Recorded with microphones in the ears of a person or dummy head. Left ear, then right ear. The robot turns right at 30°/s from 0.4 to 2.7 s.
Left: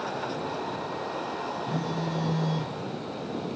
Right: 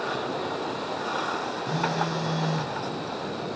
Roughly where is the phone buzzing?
Right.